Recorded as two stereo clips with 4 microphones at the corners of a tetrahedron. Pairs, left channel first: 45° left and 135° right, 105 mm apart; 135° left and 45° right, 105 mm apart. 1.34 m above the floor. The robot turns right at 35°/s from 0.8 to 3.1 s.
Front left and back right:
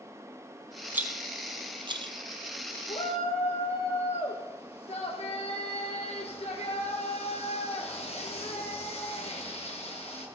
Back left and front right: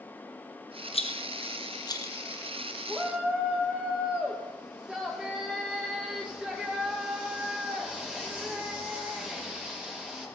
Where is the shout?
25° left, 1.1 m; by 10.3 s 35° left, 1.1 m.